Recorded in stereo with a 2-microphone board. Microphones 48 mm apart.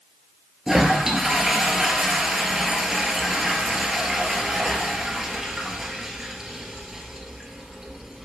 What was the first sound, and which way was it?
A toilet flushing, 10° right (ahead or behind).